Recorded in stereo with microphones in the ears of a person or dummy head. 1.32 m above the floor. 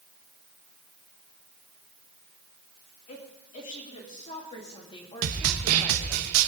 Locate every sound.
3.1 s a woman speaking: 40° left (ahead or behind), 3.5 m; by 6.2 s 5° left (ahead or behind), 2.5 m
5.2 s a snare drum: 75° right (ahead or behind), 1.1 m